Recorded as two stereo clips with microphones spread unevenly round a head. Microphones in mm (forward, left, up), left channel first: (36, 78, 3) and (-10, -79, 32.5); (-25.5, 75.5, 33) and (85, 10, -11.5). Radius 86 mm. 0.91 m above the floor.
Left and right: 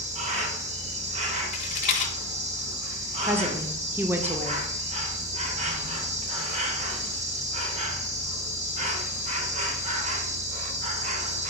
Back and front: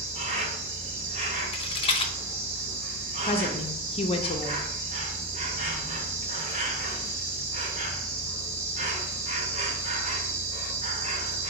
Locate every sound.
0.0 s an insect: 55° right, 0.8 m
1.5 s a rattle: 95° left, 0.8 m
3.3 s a woman speaking: 175° left, 0.6 m